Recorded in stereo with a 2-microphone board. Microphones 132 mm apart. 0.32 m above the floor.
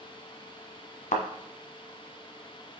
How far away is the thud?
About 1.3 m.